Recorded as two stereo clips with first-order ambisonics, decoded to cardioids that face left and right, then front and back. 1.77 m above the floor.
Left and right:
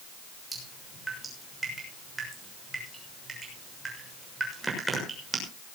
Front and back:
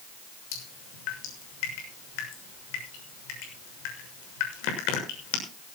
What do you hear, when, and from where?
0.5 s dripping: 10° right, 6.5 m